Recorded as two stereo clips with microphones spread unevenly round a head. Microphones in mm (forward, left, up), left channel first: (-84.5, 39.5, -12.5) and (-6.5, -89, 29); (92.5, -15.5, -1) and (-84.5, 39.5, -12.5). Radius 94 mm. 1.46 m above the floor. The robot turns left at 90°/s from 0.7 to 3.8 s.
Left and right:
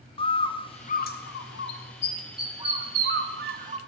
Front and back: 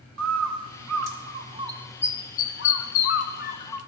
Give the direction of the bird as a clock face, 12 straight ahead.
6 o'clock.